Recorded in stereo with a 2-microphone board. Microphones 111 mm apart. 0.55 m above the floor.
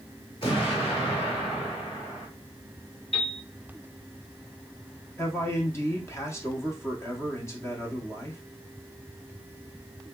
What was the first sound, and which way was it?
An explosion, 50° left (ahead or behind).